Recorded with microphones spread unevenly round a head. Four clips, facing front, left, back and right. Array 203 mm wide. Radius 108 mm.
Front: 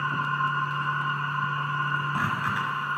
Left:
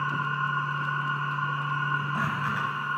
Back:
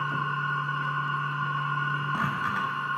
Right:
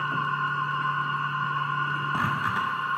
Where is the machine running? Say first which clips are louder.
Right 1 dB, front 2 dB; 125° right, 2.5 m.